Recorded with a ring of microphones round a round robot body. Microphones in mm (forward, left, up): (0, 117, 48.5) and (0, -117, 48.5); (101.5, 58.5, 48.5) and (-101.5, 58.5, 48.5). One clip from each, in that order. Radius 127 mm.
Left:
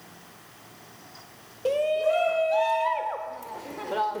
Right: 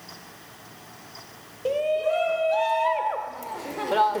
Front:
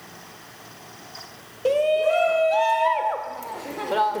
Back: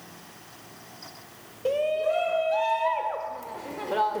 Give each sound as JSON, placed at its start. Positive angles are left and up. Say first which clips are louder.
{"t": 1.6, "sound": "a shout", "louder": "even, front 5 dB", "azimuth_deg": 30, "distance_m": 1.6}